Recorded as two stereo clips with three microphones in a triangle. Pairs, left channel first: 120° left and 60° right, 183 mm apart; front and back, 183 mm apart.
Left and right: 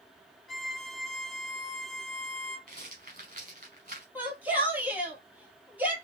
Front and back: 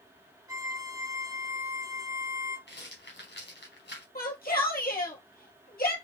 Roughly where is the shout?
Ahead.